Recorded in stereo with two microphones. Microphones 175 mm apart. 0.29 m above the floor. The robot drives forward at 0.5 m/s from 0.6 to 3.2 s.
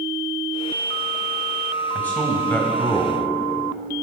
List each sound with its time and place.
1.9 s a man speaking: 10° left (ahead or behind), 1.6 m